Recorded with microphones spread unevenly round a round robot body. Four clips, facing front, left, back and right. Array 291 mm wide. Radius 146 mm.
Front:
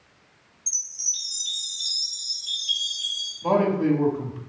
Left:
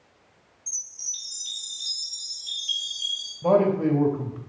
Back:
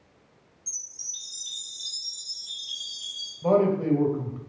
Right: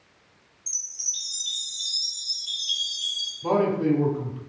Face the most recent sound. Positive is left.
turn(degrees=100)